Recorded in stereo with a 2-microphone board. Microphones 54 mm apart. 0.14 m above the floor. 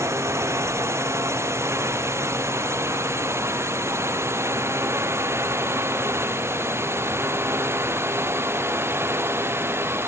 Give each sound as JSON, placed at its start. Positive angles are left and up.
{"t": 0.0, "sound": "a drone", "side_deg": -65}